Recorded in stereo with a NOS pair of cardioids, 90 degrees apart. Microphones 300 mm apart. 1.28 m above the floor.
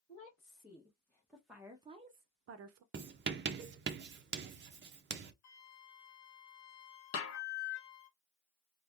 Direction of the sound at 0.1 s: 20° left.